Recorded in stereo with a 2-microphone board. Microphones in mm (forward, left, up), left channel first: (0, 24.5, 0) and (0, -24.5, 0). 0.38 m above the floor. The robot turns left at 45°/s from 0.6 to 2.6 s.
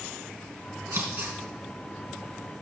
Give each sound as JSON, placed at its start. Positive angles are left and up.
{"t": 0.9, "sound": "scissors", "side_deg": -60, "distance_m": 4.0}